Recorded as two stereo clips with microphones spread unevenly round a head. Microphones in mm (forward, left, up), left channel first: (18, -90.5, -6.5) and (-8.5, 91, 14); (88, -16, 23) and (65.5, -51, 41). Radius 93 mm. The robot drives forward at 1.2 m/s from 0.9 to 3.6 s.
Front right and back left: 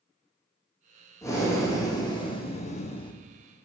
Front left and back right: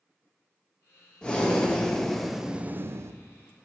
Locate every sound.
1.2 s breathing: 10° right, 2 m; by 3.1 s 140° right, 0.6 m